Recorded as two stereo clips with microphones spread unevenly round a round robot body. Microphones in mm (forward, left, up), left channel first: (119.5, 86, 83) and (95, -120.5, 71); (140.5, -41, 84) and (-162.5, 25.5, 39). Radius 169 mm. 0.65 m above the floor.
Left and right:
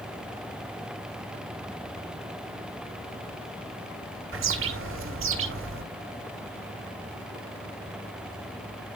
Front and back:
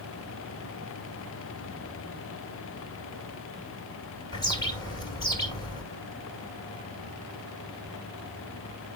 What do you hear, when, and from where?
4.3 s a bird: 90° right, 2 m